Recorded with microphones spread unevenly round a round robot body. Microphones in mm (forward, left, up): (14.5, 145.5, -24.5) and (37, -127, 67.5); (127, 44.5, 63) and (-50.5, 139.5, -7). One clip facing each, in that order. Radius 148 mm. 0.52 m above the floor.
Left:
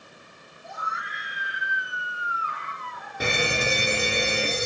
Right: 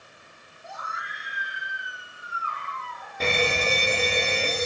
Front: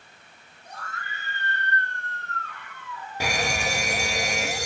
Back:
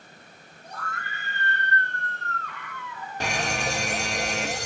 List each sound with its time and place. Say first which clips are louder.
0.6 s a scream: left 2 dB, back 2 dB; 175° right, 4.5 m; by 3.6 s 170° left, 7 m
3.2 s a fire alarm: right 1 dB, front 1 dB; 80° left, 2 m